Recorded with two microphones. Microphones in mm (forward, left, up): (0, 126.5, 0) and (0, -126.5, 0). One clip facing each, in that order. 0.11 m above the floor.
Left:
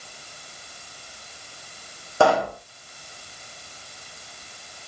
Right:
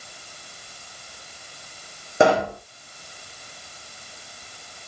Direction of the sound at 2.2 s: 20° right (ahead or behind).